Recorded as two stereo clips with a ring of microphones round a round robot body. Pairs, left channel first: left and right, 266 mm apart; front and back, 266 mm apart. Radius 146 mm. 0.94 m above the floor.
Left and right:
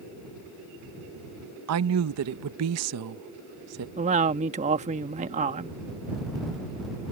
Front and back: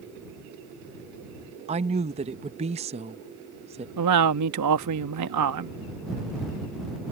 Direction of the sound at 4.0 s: 155° right.